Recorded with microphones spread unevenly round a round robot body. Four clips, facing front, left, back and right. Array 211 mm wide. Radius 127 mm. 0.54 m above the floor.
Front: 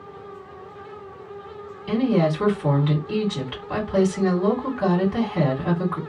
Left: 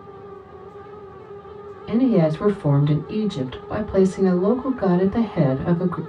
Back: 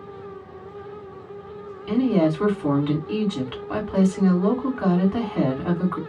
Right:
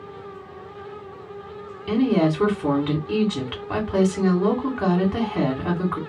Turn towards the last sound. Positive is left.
turn(degrees=-140)